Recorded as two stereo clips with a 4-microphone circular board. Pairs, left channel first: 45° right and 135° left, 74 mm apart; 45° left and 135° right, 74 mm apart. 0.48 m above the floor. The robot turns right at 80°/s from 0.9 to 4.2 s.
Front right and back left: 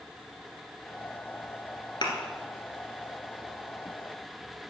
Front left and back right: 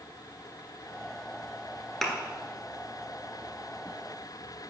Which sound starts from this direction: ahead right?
A thud, at 2.0 s.